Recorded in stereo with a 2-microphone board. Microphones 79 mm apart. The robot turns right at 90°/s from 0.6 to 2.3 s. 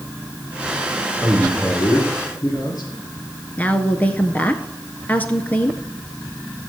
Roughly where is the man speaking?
Ahead right.